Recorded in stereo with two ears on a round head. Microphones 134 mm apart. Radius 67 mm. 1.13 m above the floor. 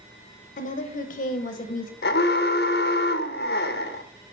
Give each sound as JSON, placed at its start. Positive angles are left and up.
{"t": 0.6, "sound": "a woman speaking", "side_deg": 55, "distance_m": 0.6}
{"t": 2.0, "sound": "an alarm", "side_deg": 75, "distance_m": 0.5}